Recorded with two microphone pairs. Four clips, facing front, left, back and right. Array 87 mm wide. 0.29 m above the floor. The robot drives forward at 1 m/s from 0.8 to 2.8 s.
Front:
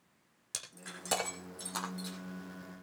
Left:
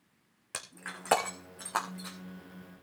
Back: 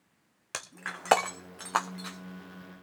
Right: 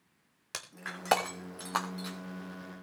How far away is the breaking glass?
About 3 m.